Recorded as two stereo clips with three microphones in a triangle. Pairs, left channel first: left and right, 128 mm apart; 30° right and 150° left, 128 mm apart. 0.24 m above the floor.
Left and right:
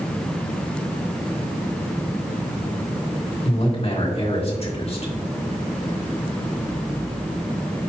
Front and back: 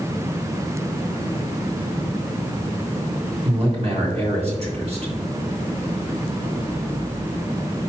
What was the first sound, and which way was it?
A man speaking, 120° left.